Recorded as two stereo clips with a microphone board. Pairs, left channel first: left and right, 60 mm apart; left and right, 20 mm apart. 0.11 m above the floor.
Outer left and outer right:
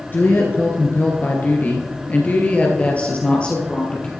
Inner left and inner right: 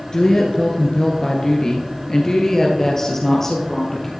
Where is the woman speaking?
35° left (ahead or behind), 1.5 m; by 4.1 s 15° left (ahead or behind), 2.5 m.